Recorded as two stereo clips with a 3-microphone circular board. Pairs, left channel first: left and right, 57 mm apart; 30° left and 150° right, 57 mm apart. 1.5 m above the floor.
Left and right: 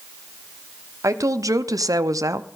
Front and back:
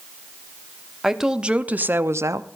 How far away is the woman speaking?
About 0.8 m.